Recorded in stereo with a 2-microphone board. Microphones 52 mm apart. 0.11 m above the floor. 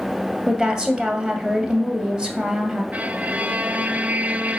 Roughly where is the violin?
Right.